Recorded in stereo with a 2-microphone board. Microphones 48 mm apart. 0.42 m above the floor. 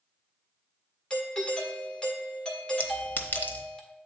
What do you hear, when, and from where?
1.1 s a doorbell: 20° left (ahead or behind), 1.6 m
2.8 s a clink: 40° left (ahead or behind), 0.9 m